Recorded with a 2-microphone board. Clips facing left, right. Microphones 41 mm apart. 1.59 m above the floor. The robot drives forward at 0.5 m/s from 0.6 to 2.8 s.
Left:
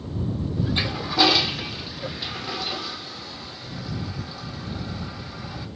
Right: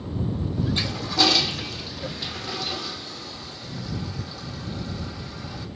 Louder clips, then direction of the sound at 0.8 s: Left 3 dB; 15° left (ahead or behind).